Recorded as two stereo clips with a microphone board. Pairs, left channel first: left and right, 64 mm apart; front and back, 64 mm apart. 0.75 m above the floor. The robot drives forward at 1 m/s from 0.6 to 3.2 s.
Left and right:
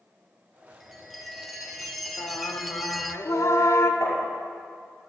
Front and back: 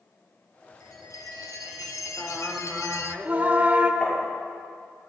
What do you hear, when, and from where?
0.8 s a chime: straight ahead, 3 m
2.2 s singing: 65° left, 1.1 m; by 3.9 s 120° left, 1.2 m
4.0 s tapping: 70° left, 5.5 m